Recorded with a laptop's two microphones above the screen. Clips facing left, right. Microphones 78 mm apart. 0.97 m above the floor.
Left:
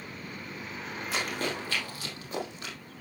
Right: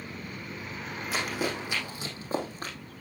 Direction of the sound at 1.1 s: Centre (ahead or behind).